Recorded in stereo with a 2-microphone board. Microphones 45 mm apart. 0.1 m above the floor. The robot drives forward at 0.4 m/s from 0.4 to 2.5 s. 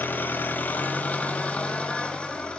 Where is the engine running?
45° left (ahead or behind), 0.7 m; by 2.6 s 20° left (ahead or behind), 1.4 m.